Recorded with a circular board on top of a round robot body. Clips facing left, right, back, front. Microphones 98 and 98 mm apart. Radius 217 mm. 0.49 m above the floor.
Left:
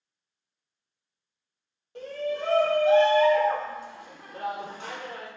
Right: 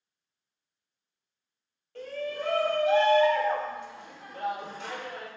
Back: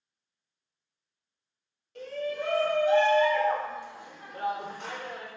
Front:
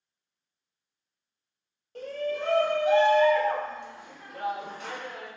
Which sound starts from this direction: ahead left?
A shout, at 1.9 s.